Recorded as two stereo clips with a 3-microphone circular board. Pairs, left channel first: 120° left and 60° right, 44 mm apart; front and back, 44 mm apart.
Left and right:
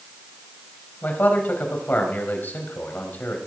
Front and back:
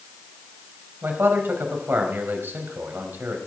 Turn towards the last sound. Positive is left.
turn(degrees=155)